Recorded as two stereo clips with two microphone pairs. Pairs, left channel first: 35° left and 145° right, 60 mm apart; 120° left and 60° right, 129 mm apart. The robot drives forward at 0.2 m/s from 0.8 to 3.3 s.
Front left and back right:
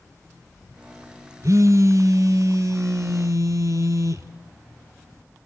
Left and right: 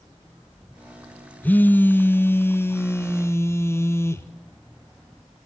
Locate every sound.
1.4 s a phone buzzing: 165° right, 0.6 m; by 4.3 s 170° right, 0.9 m